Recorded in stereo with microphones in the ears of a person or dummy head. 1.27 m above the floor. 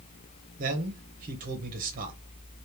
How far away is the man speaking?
About 1.3 m.